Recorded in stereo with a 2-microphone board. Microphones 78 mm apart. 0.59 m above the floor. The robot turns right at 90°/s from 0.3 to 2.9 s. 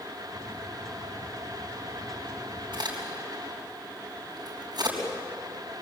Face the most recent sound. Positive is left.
turn(degrees=-60)  # may be behind; listen again after turning